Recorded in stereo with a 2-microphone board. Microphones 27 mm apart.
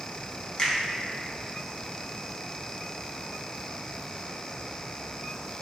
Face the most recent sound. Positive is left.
turn(degrees=35)  # may be behind; listen again after turning